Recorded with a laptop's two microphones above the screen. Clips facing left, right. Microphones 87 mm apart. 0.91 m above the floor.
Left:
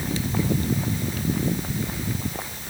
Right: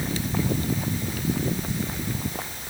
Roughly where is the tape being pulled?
I don't hear tape being pulled.